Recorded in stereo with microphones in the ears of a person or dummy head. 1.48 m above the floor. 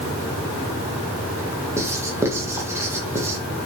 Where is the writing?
15° right (ahead or behind), 1.9 m.